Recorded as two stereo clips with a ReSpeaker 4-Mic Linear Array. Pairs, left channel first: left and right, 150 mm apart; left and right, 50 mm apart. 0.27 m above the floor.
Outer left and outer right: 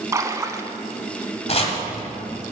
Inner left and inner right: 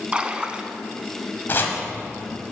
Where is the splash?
20° right (ahead or behind), 0.7 m.